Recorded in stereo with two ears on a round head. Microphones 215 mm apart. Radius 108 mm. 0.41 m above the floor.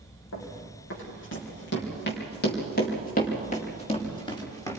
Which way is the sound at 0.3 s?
60° left (ahead or behind).